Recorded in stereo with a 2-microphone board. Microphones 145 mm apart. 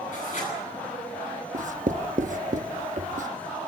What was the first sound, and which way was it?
Writing, 60° left (ahead or behind).